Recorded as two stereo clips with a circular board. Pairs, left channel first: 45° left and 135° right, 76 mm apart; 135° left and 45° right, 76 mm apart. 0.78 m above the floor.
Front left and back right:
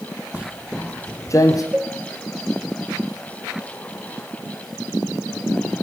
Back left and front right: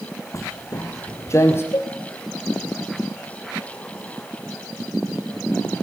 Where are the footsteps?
160° left, 1.1 m; by 1.6 s 80° left, 2 m.